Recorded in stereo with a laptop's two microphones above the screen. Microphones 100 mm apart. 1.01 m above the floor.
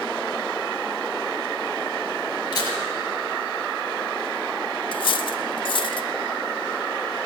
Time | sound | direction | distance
2.5 | a camera shutter | 40° left (ahead or behind) | 4.5 m
4.9 | cutlery clinking | 55° left (ahead or behind) | 0.7 m